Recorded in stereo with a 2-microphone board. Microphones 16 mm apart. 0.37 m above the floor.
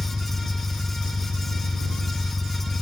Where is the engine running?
Centre (ahead or behind).